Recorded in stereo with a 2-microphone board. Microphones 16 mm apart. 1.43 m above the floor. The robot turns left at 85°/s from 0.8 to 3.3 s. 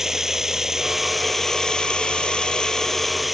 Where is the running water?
150° right; by 3.4 s straight ahead.